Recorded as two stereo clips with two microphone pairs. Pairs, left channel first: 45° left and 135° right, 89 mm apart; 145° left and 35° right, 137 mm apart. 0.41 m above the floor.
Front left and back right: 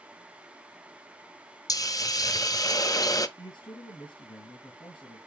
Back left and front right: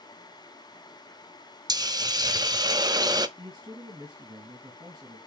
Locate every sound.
1.7 s a hiss: 20° left, 0.7 m
3.4 s a man speaking: 20° left, 3.5 m